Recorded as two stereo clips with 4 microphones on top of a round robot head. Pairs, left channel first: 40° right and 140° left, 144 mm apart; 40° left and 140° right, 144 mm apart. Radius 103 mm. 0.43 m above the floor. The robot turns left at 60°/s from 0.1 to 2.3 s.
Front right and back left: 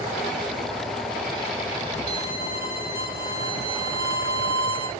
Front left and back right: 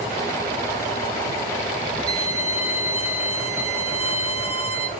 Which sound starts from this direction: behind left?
A violin, at 2.1 s.